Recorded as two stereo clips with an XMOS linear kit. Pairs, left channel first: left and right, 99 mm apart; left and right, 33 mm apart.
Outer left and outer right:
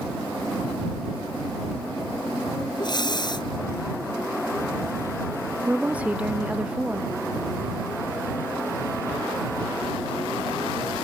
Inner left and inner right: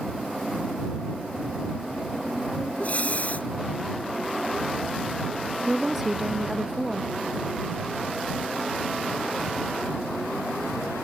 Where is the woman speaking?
15° right (ahead or behind).